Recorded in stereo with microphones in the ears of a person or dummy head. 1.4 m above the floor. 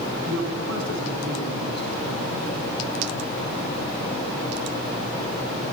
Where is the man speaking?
85° right, 9.5 m.